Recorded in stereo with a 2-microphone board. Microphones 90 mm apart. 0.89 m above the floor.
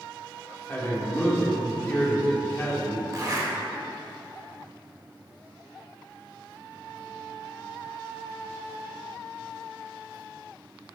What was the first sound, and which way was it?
A man speaking, 20° left (ahead or behind).